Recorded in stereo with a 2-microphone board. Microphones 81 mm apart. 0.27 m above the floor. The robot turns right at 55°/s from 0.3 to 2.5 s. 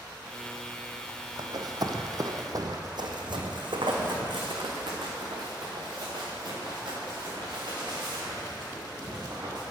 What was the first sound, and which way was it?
Running footsteps, 65° right (ahead or behind).